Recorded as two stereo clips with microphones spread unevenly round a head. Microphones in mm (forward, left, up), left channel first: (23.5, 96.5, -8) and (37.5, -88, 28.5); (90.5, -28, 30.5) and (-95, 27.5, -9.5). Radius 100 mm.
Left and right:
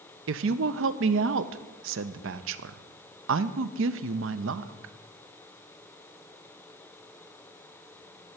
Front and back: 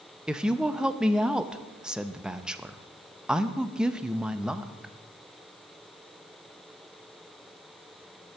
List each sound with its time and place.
0.3 s a woman speaking: 115° right, 0.5 m